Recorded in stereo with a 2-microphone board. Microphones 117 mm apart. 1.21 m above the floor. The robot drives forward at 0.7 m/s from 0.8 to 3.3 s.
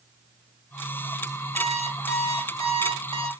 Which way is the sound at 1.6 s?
65° right (ahead or behind).